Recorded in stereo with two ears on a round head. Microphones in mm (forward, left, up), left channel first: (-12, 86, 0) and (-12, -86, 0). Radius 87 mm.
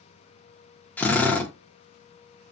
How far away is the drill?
About 0.9 m.